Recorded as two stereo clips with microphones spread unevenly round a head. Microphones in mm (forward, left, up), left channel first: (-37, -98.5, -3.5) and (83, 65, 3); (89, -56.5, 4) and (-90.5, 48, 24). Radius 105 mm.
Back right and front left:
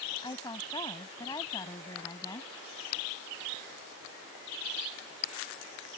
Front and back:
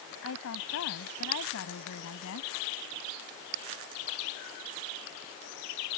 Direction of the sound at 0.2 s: 55° right.